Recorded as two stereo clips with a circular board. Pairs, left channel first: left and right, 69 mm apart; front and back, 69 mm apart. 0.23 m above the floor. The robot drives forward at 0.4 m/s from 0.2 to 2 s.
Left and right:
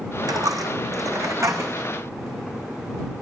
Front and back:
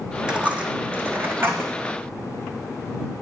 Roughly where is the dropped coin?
Right.